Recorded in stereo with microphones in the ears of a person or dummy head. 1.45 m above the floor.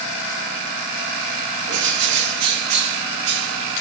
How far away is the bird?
About 0.7 m.